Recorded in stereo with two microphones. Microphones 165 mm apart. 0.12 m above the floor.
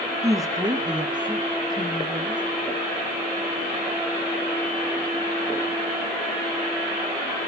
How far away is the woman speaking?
About 1.2 m.